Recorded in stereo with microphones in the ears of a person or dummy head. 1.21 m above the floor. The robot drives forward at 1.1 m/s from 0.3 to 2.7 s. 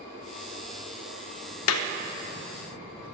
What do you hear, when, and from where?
1.7 s a clap: 70° left (ahead or behind), 0.8 m; by 1.9 s 85° left, 0.8 m